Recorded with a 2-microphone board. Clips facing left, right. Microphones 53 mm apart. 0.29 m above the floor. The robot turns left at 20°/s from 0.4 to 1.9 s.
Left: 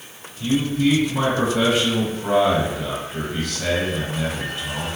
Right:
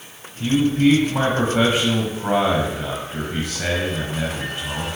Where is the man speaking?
110° right, 1.2 m; by 4.9 s 140° right, 1.2 m.